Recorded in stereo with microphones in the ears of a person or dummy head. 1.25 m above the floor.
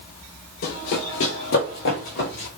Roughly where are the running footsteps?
Left.